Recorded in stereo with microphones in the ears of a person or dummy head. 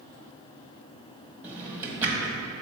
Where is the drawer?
10° right (ahead or behind), 1.1 m.